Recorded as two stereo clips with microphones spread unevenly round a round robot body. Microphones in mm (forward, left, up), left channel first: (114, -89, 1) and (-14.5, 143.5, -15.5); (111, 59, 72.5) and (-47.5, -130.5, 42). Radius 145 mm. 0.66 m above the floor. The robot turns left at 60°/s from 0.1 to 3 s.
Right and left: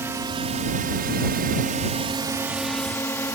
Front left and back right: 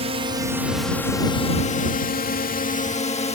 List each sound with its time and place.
0.0 s a drone: 165° right; by 3.4 s 10° left